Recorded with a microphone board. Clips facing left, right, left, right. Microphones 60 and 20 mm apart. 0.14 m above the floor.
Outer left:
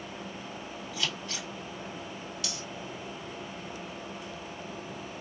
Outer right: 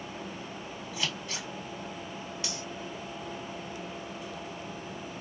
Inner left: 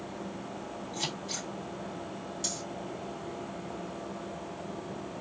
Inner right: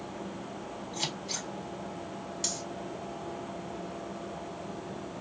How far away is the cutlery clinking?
About 1.7 m.